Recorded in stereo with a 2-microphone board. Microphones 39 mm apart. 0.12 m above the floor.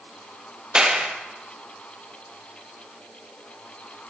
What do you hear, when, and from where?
0.8 s a clap: 25° right (ahead or behind), 2.5 m